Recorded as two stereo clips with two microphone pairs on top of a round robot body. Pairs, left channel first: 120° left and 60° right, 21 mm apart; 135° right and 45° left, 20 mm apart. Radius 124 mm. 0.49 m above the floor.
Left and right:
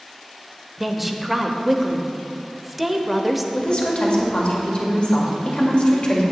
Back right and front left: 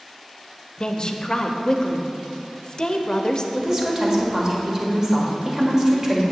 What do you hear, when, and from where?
0.8 s a woman speaking: 160° right, 0.8 m
3.5 s a woman speaking: 110° left, 2 m